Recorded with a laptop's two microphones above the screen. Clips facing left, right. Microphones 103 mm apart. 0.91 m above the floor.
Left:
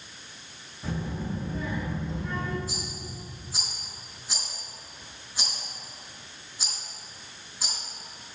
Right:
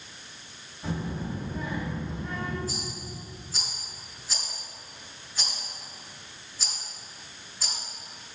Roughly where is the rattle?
Centre.